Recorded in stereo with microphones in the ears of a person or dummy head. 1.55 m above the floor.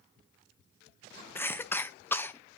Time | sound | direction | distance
1.4 | a cough | 10° left (ahead or behind) | 0.6 m